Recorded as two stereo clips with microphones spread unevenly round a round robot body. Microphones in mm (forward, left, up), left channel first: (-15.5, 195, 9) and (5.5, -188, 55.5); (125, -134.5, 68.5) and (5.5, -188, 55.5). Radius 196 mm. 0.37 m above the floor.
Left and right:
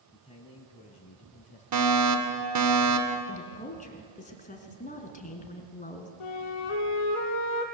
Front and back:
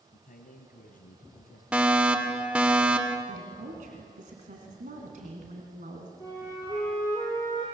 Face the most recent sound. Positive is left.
turn(degrees=105)